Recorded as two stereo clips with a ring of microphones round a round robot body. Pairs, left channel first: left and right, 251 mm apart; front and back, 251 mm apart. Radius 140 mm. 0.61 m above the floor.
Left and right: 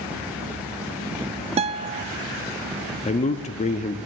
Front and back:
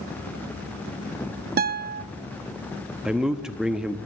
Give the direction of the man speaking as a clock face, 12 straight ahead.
9 o'clock.